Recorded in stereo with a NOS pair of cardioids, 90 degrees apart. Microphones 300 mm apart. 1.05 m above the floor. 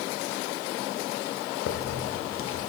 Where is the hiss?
45° left, 0.7 m.